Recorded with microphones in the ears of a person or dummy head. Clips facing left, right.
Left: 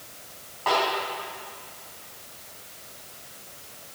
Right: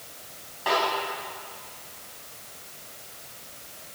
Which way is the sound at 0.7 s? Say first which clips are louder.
Left 1 dB; 10° right (ahead or behind).